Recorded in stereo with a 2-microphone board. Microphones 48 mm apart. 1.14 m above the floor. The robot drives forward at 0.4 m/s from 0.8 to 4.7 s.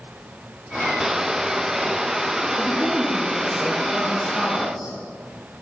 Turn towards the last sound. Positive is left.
turn(degrees=25)  # may be behind; listen again after turning